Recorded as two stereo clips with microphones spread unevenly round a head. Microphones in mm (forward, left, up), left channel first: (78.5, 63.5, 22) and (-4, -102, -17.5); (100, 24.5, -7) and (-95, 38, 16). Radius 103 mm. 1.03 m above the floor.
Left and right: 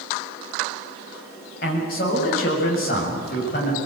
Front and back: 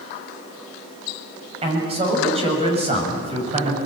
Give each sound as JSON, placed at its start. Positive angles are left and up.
{"t": 1.6, "sound": "a man speaking", "azimuth_deg": 115, "distance_m": 7.5}